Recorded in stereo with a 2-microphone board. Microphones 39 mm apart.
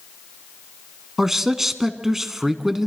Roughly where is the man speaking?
Centre.